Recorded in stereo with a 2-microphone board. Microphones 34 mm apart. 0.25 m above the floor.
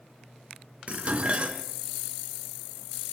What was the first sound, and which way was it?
Dishes clattering, 35° right (ahead or behind).